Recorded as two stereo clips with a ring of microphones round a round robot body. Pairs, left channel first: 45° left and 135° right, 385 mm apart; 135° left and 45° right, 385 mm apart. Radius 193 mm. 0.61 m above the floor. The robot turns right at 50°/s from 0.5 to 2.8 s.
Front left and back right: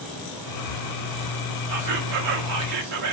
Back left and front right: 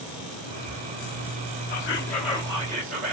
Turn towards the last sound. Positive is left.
turn(degrees=-105)